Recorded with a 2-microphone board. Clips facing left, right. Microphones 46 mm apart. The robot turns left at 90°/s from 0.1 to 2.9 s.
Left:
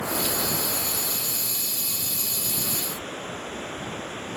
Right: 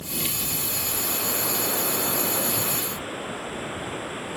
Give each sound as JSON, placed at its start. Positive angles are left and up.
{"t": 0.0, "sound": "running water", "azimuth_deg": 80}